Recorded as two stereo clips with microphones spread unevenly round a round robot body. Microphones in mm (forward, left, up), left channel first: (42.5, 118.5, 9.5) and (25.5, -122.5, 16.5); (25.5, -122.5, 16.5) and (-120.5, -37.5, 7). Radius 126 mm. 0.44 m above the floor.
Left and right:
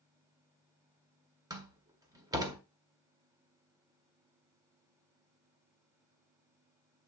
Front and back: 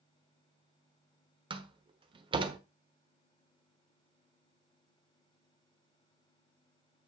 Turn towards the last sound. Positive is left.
turn(degrees=-165)